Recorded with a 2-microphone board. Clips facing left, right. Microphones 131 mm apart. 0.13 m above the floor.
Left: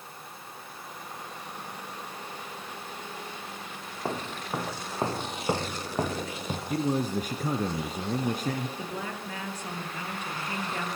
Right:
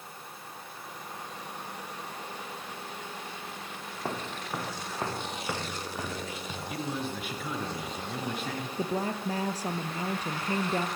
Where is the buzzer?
I don't hear a buzzer.